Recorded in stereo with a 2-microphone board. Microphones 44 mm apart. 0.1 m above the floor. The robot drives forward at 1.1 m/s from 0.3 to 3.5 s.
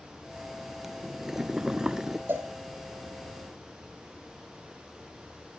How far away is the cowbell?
About 3 m.